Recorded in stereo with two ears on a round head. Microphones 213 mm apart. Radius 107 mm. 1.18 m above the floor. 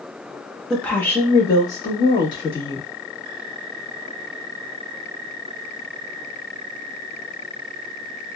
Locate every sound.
0.7 s a woman speaking: 5° left (ahead or behind), 0.9 m; by 2.9 s 20° left (ahead or behind), 2.0 m